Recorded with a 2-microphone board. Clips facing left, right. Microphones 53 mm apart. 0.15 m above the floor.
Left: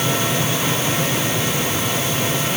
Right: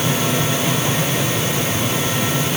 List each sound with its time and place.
Only background noise.